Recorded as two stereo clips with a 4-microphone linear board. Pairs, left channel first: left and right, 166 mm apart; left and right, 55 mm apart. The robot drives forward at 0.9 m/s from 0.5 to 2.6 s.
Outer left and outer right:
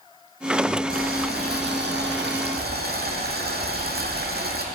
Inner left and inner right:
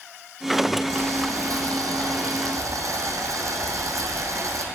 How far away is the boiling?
About 1.8 m.